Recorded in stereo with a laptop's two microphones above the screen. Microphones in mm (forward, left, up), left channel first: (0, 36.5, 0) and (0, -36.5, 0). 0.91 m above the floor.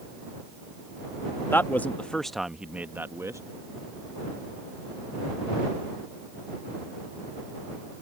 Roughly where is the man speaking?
Left.